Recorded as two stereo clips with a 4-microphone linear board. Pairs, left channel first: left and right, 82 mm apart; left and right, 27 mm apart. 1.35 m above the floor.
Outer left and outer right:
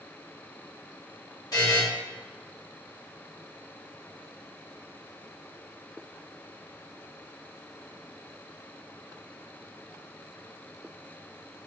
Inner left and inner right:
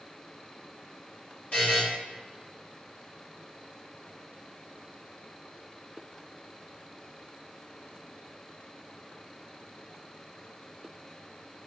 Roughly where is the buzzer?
Left.